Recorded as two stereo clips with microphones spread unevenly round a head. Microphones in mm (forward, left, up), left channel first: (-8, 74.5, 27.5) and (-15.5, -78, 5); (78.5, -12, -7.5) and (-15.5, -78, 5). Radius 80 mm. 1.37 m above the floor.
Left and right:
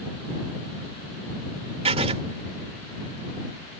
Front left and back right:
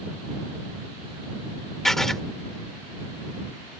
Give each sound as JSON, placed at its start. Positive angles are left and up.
{"t": 1.9, "sound": "writing", "azimuth_deg": -60}